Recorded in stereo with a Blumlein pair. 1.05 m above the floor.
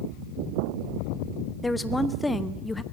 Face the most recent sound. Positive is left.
turn(degrees=10)